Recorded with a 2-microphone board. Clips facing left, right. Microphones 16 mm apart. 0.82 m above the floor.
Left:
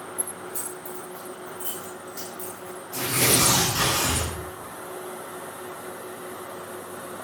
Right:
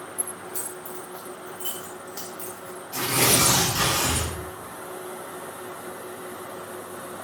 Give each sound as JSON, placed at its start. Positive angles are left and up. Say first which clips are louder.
{"t": 0.2, "sound": "keys jangling", "louder": "even", "side_deg": -90, "distance_m": 5.5}
{"t": 2.9, "sound": "tearing paper", "louder": "right 1 dB", "side_deg": -65, "distance_m": 7.0}